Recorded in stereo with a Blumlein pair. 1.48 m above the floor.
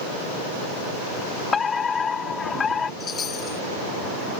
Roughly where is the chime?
Ahead.